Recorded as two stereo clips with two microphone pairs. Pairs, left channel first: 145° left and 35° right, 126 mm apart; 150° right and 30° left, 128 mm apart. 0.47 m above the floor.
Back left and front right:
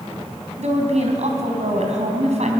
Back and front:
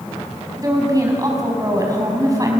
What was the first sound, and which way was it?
A woman speaking, 30° right.